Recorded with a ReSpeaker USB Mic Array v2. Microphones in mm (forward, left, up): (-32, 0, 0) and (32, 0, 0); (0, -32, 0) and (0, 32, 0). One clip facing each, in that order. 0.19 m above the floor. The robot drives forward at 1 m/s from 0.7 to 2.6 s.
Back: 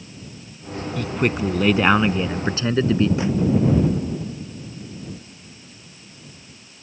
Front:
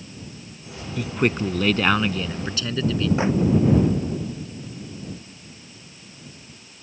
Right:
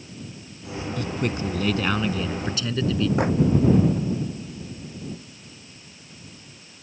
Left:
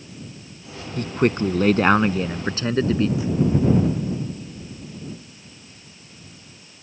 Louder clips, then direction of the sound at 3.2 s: Front 1 dB, right 3 dB; 60° right.